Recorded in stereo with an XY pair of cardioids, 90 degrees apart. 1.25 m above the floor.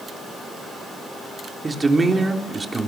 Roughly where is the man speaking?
Ahead right.